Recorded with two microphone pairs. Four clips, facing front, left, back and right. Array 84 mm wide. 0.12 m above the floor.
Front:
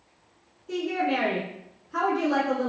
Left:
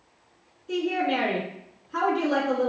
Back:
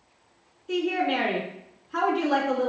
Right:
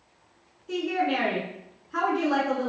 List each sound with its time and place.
0.7 s a woman speaking: 150° right, 1.1 m